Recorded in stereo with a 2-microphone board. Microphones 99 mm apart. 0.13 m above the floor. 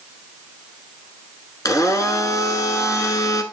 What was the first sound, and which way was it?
A blender, 35° left (ahead or behind).